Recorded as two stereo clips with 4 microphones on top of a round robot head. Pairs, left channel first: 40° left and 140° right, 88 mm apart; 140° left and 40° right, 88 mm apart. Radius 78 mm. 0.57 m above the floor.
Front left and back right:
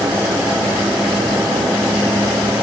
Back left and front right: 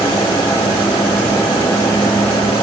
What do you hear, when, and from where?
Only background noise.